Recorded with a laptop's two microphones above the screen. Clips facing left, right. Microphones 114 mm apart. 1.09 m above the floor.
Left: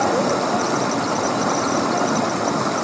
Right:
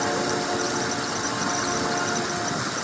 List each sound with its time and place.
0.0 s running water: 60° left (ahead or behind)